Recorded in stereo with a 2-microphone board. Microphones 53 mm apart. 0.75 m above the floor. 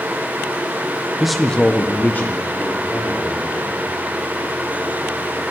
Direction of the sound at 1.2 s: 5° right (ahead or behind).